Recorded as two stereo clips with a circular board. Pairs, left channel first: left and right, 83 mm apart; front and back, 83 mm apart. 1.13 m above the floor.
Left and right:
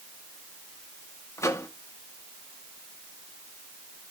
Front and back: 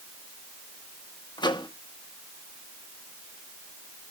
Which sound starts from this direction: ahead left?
A microwave, at 1.4 s.